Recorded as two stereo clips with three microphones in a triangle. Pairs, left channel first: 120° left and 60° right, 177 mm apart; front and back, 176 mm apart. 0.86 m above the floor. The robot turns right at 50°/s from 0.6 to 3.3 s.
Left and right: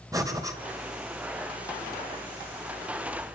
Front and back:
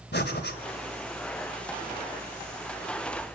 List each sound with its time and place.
0.1 s breathing: 10° left, 3 m